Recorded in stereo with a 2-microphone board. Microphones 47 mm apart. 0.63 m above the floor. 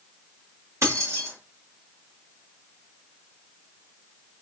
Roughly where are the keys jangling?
Right.